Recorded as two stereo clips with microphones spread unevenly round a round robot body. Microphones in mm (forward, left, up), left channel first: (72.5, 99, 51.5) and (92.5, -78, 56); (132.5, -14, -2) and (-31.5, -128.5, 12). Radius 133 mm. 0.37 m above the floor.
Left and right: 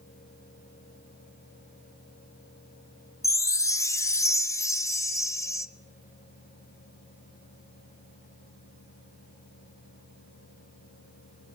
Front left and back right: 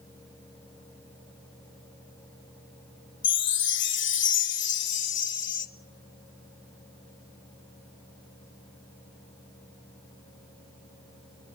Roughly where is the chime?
Ahead left.